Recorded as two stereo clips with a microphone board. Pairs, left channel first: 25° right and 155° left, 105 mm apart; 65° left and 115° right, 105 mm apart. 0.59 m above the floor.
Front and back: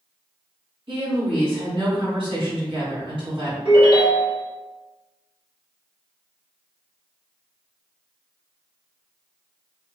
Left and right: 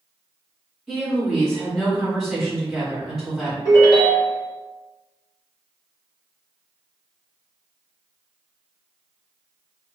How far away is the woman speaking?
About 1.9 m.